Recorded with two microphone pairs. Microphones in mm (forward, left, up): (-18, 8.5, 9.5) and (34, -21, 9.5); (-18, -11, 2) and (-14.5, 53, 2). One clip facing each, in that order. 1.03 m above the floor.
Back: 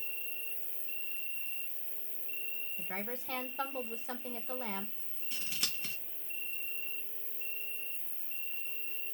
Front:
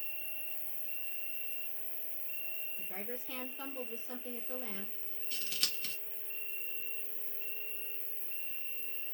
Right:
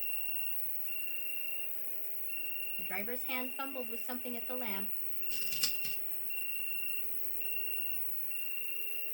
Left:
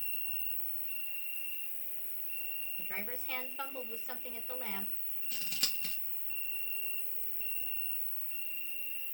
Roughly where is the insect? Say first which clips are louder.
Back 3 dB, right 2 dB; behind left.